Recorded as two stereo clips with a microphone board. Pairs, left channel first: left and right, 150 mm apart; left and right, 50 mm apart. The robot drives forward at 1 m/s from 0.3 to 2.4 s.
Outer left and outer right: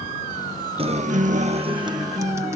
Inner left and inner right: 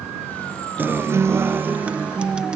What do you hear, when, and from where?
0.8 s a guitar: 40° right (ahead or behind); by 2.6 s 20° right (ahead or behind)